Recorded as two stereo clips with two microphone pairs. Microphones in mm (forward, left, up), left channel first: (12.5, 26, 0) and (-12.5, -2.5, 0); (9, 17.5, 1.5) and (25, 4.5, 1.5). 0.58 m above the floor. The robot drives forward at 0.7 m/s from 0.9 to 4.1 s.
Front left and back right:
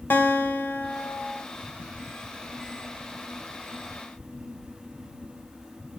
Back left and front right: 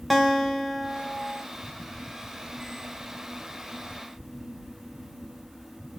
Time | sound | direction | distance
0.1 | a guitar | 50° left | 1.8 m